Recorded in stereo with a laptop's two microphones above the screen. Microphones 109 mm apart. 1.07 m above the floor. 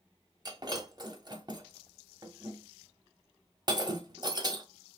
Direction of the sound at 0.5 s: 40° right (ahead or behind).